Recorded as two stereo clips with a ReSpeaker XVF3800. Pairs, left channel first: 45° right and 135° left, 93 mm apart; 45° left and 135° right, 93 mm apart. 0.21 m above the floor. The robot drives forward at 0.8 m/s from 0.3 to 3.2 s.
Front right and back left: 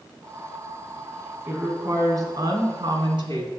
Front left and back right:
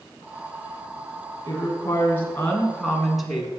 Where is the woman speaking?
75° left, 1.5 m; by 3.5 s 135° left, 1.8 m.